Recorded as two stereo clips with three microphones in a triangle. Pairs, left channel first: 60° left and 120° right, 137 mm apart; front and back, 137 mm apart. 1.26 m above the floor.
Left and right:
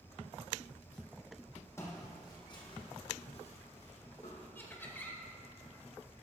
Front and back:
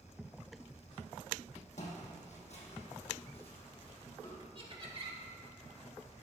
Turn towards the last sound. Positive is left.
turn(degrees=135)